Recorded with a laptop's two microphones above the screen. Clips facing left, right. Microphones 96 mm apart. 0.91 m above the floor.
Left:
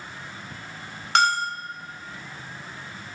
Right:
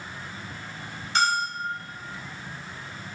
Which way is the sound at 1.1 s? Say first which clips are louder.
Left 3 dB; 65° left (ahead or behind).